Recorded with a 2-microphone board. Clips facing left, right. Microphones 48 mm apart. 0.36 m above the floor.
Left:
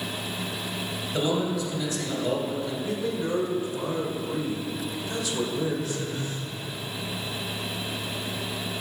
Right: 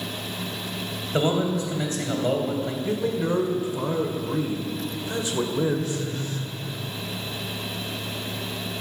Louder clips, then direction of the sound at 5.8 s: Right 2 dB; 20° left (ahead or behind).